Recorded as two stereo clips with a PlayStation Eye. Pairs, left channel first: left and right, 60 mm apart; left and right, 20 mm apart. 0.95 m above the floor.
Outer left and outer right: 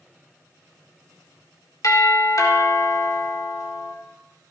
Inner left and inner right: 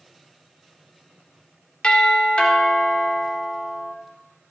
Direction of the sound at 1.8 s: 65° left (ahead or behind).